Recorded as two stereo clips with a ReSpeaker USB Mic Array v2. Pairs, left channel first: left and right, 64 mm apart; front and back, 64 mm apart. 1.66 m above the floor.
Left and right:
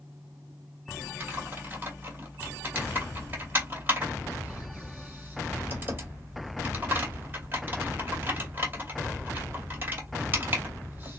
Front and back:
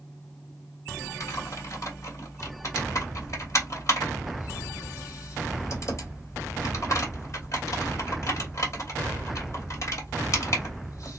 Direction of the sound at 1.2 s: 35° right.